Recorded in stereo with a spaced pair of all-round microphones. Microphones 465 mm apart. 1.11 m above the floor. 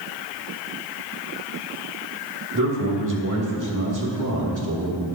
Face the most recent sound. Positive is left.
turn(degrees=-40)  # may be behind; listen again after turning